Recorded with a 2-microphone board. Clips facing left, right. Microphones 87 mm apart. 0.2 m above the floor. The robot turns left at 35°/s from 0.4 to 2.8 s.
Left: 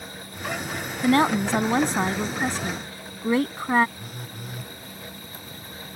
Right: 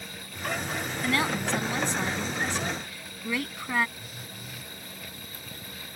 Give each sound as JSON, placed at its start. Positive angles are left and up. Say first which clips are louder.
{"t": 1.0, "sound": "a woman speaking", "louder": "left 9 dB", "azimuth_deg": 120}
{"t": 4.0, "sound": "a phone buzzing", "louder": "left 5 dB", "side_deg": 50}